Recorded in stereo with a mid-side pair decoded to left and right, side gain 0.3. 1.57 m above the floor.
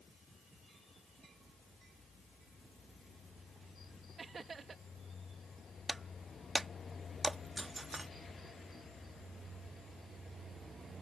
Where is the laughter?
55° right.